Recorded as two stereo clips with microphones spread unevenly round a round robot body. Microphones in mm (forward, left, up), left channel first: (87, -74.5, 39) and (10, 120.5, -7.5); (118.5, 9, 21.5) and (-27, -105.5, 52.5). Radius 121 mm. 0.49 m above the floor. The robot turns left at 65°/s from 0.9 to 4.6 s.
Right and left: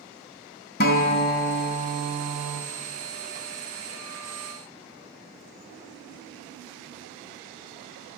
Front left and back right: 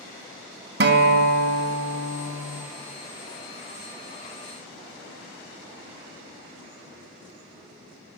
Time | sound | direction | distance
0.8 | a guitar | 115° right | 0.7 m